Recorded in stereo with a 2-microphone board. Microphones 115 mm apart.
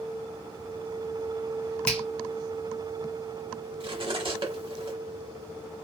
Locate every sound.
1.9 s a finger snap: 10° left (ahead or behind), 1.2 m
3.8 s cutlery clinking: 50° right (ahead or behind), 0.8 m